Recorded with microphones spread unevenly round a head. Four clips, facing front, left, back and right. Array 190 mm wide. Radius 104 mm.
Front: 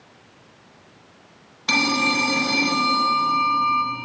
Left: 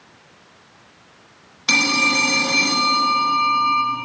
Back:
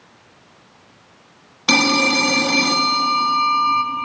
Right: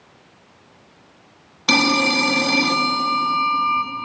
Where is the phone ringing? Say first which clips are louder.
Right 3 dB, back 5 dB; 160° right, 1.0 m.